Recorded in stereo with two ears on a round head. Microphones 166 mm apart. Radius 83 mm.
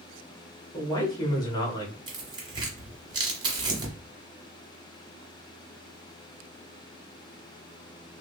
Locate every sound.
0.7 s a man speaking: 20° left (ahead or behind), 1.3 m
2.1 s tearing paper: 25° right (ahead or behind), 1.4 m